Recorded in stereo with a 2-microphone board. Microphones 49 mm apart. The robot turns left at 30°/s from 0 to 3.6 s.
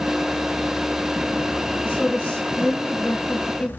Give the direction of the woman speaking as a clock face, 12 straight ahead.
7 o'clock.